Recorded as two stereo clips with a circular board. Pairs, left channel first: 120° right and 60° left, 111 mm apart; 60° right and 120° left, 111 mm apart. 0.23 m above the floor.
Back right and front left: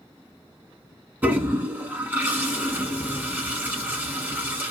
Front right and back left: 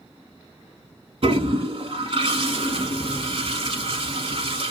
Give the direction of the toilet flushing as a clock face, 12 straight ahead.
8 o'clock.